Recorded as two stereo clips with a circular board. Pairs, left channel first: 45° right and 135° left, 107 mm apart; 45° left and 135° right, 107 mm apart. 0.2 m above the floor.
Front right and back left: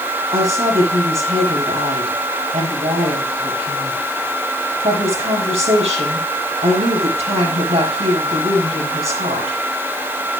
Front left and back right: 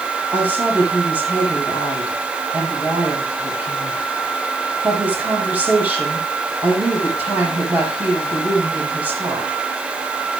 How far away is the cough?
I don't hear a cough.